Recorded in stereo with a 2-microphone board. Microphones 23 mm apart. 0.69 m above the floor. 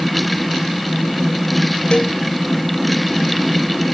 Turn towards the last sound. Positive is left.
turn(degrees=50)  # may be behind; listen again after turning